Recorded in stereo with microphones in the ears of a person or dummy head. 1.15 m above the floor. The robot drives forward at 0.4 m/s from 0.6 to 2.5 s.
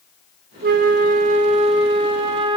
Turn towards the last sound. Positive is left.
turn(degrees=-30)  # may be behind; listen again after turning